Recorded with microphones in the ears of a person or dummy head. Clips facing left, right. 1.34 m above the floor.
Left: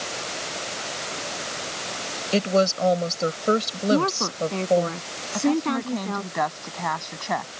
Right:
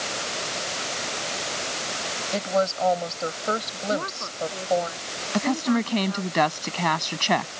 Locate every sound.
2.3 s a woman speaking: 50° left (ahead or behind)
3.9 s a woman speaking: 85° left
5.3 s a woman speaking: 40° right (ahead or behind)